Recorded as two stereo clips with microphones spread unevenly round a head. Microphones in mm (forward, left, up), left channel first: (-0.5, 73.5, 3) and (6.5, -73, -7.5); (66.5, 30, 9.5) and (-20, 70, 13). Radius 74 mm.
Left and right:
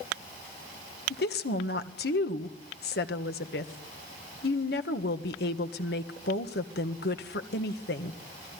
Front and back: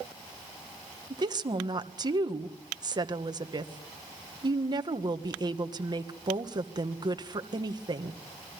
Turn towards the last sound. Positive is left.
turn(degrees=110)